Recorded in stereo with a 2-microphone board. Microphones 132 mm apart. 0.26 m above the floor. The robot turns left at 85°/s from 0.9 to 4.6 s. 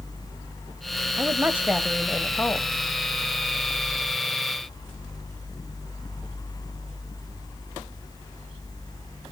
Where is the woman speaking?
20° right (ahead or behind), 1.0 m; by 2.7 s 20° left (ahead or behind), 1.0 m.